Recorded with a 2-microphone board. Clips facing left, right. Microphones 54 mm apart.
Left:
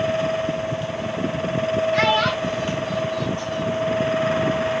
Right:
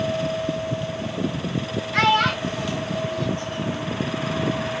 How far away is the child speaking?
About 3 m.